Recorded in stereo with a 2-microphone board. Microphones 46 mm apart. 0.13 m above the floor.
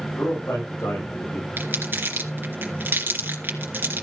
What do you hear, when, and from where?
0.1 s a man speaking: 75° left (ahead or behind), 7.5 m
1.6 s crumpling: 50° right (ahead or behind), 2.5 m